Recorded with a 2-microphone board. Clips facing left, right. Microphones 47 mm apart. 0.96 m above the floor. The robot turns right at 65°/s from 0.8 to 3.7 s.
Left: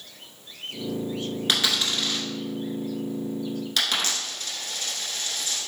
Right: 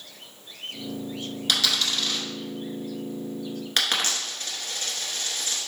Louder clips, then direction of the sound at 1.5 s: Even; 35° left (ahead or behind).